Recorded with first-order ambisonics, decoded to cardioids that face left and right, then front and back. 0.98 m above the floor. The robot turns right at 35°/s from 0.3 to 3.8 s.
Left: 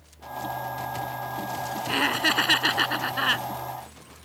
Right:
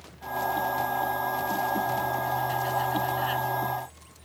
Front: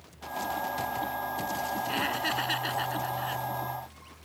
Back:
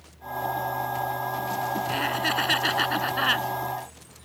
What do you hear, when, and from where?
1.9 s laughter: 90° left; by 3.5 s 145° left